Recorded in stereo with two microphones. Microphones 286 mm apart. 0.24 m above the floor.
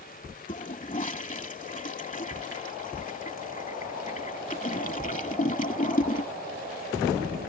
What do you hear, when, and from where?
0.5 s a toilet flushing: 25° left (ahead or behind)